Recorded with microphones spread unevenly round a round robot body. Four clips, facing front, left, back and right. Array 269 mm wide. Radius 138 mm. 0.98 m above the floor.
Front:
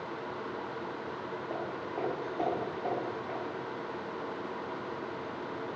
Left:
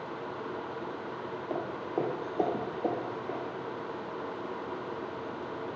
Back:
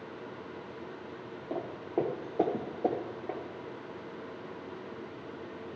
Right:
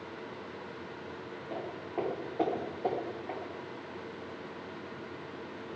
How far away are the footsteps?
About 1.2 m.